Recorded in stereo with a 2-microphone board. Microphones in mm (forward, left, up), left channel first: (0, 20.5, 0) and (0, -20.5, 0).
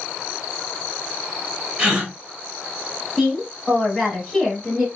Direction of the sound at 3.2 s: Centre (ahead or behind).